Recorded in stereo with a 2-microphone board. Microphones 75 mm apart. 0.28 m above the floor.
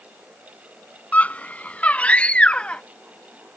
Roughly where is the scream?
Left.